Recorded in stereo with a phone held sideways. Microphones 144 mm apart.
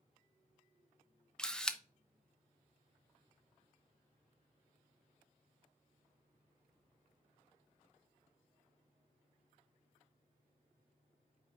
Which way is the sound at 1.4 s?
5° left (ahead or behind).